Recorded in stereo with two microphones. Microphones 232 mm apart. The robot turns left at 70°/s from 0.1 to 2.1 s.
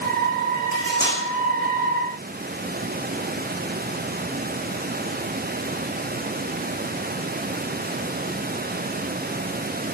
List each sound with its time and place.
0.7 s cutlery clinking: 35° left (ahead or behind), 4.5 m; by 1.2 s centre (ahead or behind), 4.5 m